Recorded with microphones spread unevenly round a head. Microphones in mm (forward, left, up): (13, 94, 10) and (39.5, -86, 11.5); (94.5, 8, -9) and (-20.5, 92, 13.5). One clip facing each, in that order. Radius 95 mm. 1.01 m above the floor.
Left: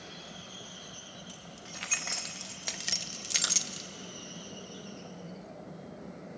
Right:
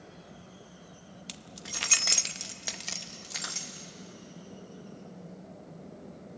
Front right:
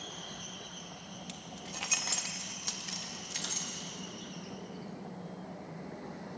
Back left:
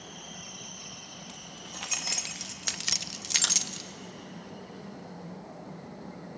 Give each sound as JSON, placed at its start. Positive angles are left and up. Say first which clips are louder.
{"t": 1.3, "sound": "keys jangling", "louder": "right 1 dB, front right 1 dB", "azimuth_deg": -110, "distance_m": 0.8}